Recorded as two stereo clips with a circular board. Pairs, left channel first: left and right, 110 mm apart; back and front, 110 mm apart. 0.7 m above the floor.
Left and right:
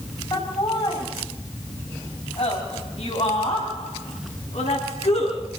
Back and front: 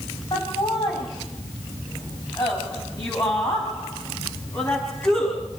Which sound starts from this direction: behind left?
Laughter, at 0.3 s.